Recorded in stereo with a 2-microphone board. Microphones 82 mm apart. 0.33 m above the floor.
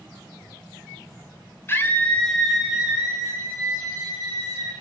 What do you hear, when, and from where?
1.7 s a scream: 30° left (ahead or behind), 1.3 m; by 4.7 s 55° right (ahead or behind), 2 m